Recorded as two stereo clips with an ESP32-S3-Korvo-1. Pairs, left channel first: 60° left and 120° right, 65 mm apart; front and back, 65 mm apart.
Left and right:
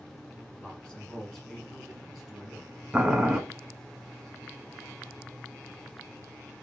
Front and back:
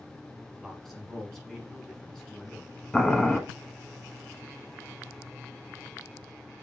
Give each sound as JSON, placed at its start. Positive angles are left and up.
{"t": 0.6, "sound": "a man speaking", "azimuth_deg": 90, "distance_m": 1.7}
{"t": 2.9, "sound": "boiling", "azimuth_deg": -60, "distance_m": 0.7}